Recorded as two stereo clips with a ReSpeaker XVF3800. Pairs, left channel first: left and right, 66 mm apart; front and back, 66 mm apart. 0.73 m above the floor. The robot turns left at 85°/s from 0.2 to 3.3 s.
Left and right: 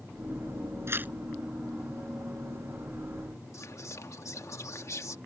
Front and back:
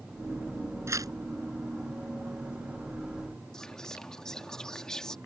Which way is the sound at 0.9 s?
135° right.